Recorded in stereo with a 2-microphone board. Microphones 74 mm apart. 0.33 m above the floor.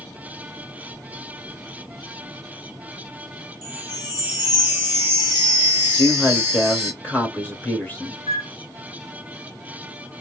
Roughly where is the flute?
Right.